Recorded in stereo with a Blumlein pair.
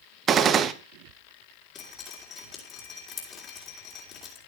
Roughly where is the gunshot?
Ahead right.